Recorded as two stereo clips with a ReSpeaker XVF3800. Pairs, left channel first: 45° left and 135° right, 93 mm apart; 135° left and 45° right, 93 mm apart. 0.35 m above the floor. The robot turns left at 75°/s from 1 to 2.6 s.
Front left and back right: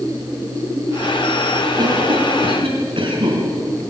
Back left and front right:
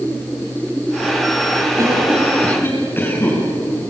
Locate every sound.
1.8 s a cough: 95° right, 4.5 m; by 3.4 s 160° right, 4.5 m